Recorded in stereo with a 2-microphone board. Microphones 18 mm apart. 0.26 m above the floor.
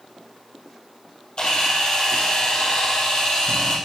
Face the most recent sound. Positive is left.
turn(degrees=60)  # may be behind; listen again after turning